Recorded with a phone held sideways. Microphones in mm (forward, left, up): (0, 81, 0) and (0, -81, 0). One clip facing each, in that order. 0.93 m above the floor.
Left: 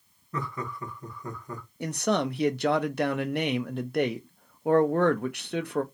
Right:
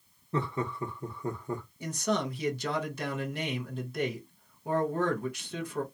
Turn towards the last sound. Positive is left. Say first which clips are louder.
# left 5 dB
turn(degrees=65)  # may be behind; listen again after turning